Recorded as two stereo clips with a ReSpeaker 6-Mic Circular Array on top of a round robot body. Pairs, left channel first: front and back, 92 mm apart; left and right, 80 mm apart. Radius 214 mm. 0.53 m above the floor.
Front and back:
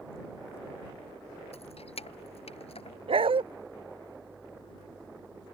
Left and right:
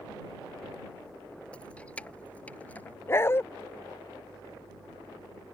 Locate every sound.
1.5 s keys jangling: 10° left; by 3.0 s 15° left
3.1 s a dog barking: 150° left